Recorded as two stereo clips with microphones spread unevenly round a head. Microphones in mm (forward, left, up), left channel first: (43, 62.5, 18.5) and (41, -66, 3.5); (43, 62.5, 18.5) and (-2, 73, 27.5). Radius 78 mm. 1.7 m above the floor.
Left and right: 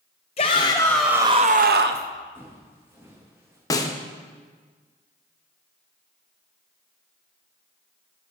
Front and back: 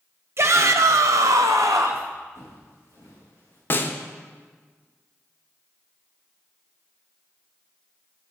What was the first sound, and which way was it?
A shout, 140° left.